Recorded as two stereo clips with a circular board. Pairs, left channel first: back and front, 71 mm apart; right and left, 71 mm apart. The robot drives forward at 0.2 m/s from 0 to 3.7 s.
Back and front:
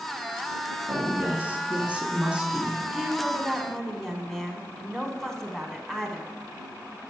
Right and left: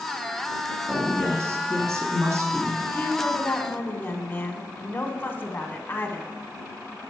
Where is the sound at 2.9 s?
85° right, 1.1 m; by 6.3 s 100° right, 1.1 m.